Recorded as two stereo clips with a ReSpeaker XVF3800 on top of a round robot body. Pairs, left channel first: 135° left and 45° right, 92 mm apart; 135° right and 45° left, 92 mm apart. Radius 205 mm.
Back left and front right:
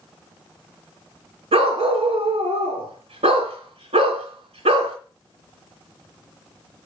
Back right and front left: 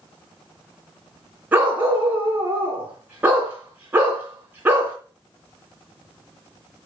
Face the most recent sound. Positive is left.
turn(degrees=-30)